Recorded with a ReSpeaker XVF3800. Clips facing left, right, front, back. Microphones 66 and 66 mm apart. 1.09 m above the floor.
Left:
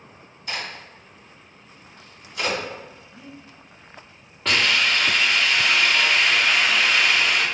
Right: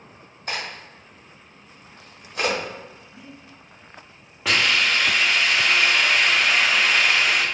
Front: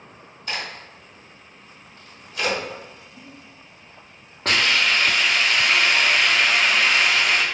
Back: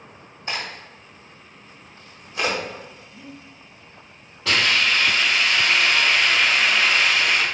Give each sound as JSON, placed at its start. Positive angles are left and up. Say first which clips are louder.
{"t": 0.5, "sound": "a crack", "louder": "right 1 dB, back 1 dB", "azimuth_deg": -125, "distance_m": 1.3}
{"t": 3.1, "sound": "breathing", "louder": "left 1 dB, back 3 dB", "azimuth_deg": -40, "distance_m": 2.0}
{"t": 4.5, "sound": "a hiss", "louder": "even, even", "azimuth_deg": -10, "distance_m": 0.8}